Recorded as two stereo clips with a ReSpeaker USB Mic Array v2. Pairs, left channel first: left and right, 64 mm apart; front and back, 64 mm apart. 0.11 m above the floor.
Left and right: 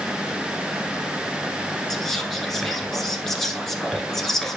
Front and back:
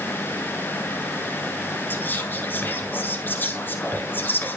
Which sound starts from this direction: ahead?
Whispering, at 1.9 s.